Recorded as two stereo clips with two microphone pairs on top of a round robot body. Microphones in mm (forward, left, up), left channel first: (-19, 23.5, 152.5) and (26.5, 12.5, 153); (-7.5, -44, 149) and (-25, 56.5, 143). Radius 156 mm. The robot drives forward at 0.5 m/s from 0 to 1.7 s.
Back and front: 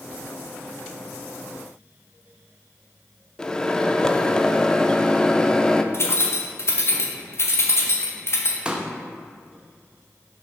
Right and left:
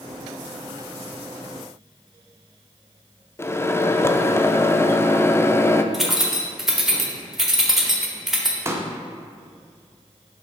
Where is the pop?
50° left, 1.0 m.